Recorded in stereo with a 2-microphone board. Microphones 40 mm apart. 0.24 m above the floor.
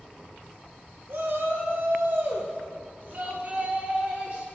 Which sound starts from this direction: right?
A shout, at 1.1 s.